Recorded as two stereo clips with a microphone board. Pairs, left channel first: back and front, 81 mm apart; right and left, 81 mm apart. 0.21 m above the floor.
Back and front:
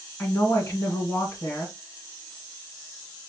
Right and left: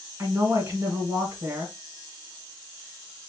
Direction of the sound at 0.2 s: 130° left.